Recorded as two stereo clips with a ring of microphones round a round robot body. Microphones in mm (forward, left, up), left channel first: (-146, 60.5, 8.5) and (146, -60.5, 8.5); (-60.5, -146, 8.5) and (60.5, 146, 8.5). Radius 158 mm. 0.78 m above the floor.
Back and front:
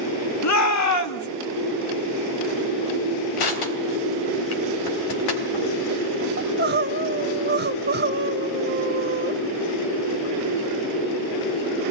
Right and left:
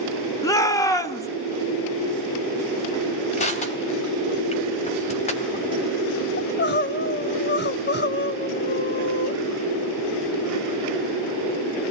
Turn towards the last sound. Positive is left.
turn(degrees=-70)